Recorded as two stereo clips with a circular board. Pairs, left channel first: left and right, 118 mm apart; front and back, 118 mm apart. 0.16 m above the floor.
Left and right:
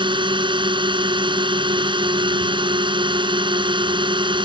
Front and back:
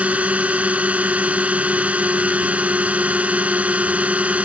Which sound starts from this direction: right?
A drone, at 0.0 s.